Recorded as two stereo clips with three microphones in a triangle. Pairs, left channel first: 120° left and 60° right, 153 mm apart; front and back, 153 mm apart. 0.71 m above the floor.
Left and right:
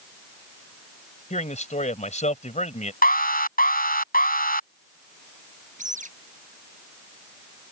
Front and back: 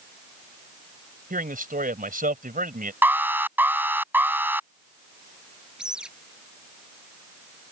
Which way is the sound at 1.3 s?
160° left.